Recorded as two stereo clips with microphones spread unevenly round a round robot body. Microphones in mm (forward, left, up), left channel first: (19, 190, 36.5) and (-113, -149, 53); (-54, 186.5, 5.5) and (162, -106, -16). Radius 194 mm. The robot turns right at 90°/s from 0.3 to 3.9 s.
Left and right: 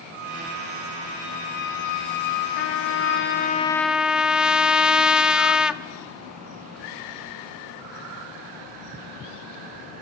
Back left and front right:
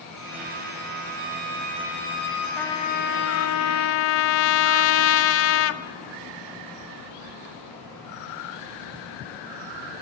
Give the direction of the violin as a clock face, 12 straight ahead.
4 o'clock.